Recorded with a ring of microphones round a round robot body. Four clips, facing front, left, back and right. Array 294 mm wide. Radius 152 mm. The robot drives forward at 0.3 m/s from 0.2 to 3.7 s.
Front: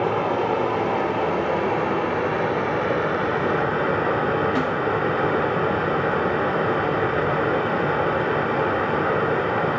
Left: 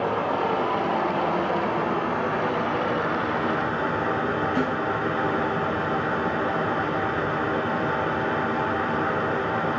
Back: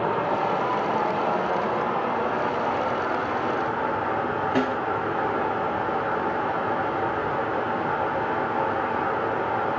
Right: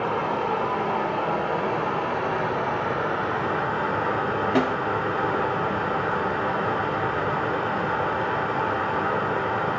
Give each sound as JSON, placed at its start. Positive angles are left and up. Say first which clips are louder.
{"t": 0.0, "sound": "running water", "louder": "left 1 dB, front 2 dB", "azimuth_deg": 5, "distance_m": 2.5}
{"t": 4.5, "sound": "a snare drum", "louder": "right 3 dB, front 1 dB", "azimuth_deg": -95, "distance_m": 5.0}